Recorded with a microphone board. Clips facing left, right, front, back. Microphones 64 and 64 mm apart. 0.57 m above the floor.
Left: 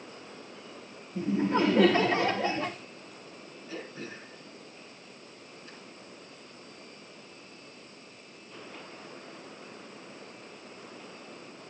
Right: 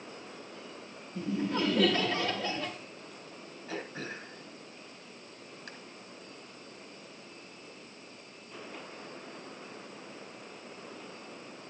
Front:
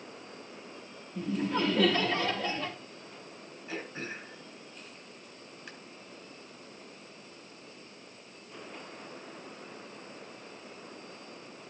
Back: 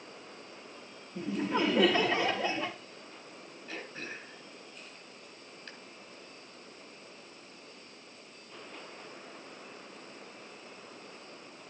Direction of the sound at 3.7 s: 80° right.